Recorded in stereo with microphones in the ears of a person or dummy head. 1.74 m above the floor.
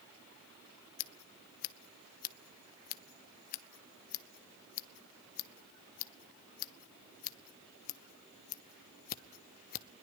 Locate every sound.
1.0 s scissors: 45° left (ahead or behind), 0.8 m